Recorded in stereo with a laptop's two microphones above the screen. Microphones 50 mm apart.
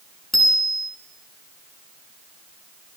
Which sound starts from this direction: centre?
A bicycle bell, at 0.3 s.